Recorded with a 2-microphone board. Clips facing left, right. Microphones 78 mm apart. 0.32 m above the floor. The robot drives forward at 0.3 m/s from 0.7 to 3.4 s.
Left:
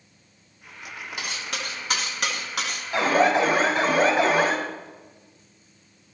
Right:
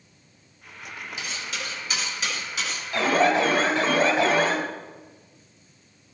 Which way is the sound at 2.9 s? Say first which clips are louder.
Left 1 dB; 20° left (ahead or behind).